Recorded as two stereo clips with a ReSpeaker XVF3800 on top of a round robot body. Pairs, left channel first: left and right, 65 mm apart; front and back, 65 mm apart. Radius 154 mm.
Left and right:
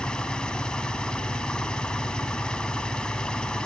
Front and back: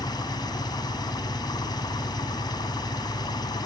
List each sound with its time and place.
0.0 s an engine running: 15° left